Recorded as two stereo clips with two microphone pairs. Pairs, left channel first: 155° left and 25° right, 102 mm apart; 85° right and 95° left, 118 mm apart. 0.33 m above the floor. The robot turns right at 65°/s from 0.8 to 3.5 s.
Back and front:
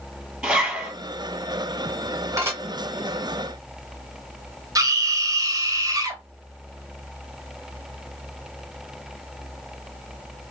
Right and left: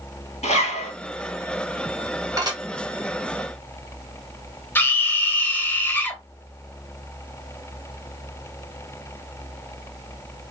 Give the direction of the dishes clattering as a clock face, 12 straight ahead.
11 o'clock.